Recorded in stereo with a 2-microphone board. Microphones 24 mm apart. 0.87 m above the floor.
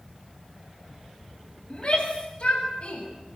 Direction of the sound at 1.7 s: 50° left (ahead or behind).